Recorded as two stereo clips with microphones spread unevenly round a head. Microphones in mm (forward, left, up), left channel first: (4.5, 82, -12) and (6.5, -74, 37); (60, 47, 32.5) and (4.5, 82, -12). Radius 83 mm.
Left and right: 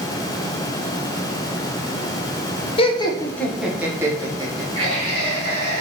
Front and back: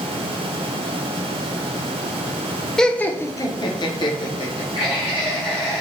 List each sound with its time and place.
2.8 s laughter: 80° left, 0.6 m; by 5.8 s 35° right, 1.4 m